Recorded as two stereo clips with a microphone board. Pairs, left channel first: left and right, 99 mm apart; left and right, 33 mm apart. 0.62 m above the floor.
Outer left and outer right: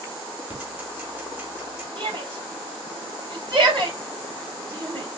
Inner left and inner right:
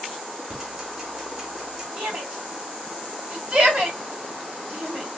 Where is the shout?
55° right (ahead or behind), 3 m.